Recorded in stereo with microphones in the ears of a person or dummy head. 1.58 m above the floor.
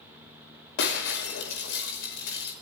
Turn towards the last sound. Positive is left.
turn(degrees=75)  # may be behind; listen again after turning